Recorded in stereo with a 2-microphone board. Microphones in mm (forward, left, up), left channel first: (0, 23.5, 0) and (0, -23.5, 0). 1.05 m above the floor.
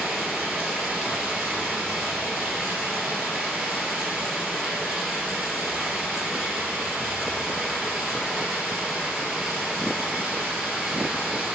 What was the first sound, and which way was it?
Running water, 15° right (ahead or behind).